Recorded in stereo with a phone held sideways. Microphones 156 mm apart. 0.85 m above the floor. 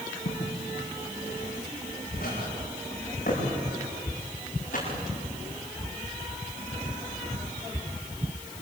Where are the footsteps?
70° left (ahead or behind), 6.5 m; by 5.0 s 55° left (ahead or behind), 11.5 m.